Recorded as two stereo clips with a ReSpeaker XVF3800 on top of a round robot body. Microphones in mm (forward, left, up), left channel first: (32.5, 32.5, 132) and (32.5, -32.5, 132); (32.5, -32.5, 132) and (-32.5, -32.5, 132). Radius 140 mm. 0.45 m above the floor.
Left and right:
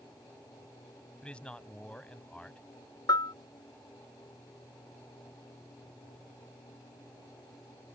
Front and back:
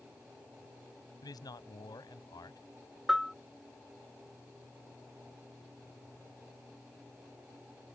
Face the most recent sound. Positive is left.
turn(degrees=90)